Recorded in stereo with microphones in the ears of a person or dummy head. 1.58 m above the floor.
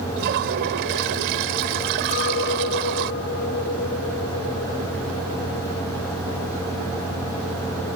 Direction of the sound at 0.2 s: 60° right (ahead or behind).